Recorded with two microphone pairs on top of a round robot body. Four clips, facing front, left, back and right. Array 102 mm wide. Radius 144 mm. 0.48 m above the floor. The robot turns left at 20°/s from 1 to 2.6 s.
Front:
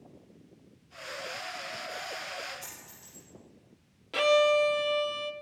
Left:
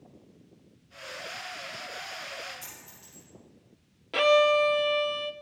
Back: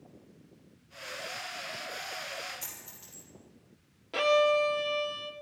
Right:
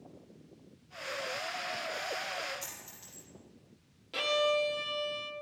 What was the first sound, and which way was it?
A dropped coin, straight behind.